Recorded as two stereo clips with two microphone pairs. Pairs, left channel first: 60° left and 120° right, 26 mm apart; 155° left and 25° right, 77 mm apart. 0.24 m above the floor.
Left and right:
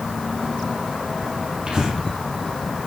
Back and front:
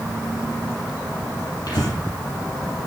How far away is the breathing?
About 6 m.